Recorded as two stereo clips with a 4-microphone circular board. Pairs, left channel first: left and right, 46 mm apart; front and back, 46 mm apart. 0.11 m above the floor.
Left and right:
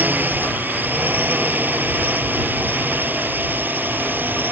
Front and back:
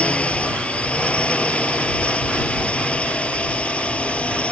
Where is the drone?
55° right.